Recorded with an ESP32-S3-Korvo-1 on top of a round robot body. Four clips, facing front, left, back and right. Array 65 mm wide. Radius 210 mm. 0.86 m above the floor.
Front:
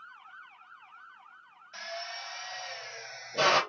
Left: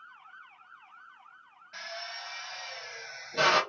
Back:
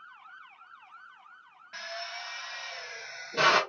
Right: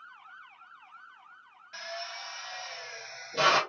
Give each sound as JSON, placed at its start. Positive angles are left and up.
{"t": 1.7, "sound": "a drill", "azimuth_deg": 180, "distance_m": 1.4}